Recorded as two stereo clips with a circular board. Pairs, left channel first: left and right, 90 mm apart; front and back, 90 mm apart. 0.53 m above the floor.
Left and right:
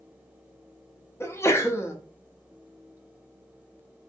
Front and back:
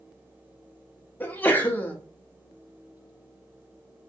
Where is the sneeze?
55° left, 0.9 m.